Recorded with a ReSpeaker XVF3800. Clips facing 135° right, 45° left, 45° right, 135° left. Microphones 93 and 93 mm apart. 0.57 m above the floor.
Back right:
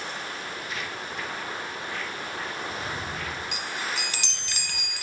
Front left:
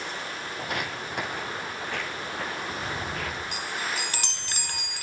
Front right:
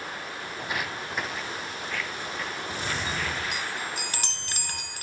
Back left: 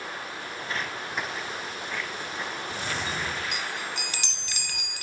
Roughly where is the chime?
Ahead.